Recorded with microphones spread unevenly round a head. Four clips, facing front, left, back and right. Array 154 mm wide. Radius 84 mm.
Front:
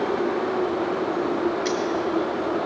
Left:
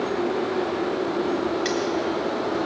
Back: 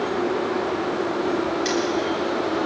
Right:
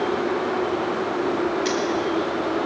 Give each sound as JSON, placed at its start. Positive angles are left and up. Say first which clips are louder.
{"t": 1.6, "sound": "cutlery clinking", "louder": "right 2 dB, back 1 dB", "azimuth_deg": 45, "distance_m": 1.2}